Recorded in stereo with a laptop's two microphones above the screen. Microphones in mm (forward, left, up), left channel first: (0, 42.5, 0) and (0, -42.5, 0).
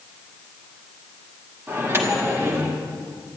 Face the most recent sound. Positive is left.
turn(degrees=-30)  # may be behind; listen again after turning